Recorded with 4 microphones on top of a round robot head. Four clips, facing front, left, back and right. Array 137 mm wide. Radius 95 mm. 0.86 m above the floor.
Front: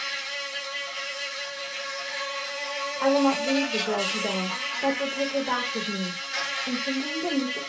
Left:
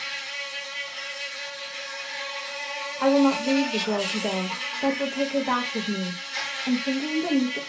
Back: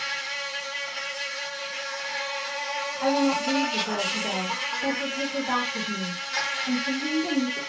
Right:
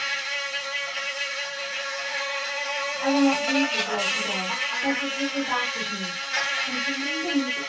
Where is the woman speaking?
65° left, 1.2 m.